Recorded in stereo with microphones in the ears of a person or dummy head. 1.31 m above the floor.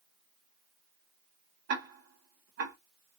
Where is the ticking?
60° right (ahead or behind), 0.9 m.